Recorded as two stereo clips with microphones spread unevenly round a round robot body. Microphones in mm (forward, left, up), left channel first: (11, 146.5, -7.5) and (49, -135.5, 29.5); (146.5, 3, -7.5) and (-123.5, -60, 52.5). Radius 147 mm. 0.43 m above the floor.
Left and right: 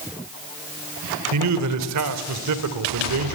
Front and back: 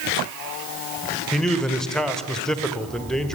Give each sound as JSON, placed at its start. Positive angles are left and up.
{"t": 1.3, "sound": "a man speaking", "azimuth_deg": -65, "distance_m": 1.7}